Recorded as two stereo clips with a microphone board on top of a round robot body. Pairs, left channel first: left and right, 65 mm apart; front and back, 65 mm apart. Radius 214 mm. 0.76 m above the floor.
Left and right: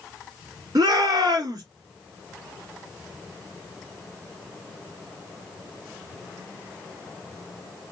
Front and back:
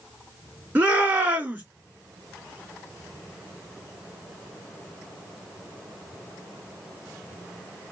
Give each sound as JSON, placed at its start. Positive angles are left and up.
{"t": 0.8, "sound": "a shout", "azimuth_deg": -120, "distance_m": 2.5}